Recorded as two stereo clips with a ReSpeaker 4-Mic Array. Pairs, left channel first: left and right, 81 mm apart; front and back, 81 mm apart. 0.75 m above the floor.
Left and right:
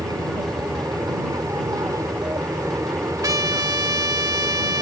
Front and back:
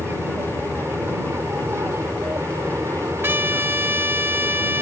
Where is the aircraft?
125° right; by 4.8 s 135° right.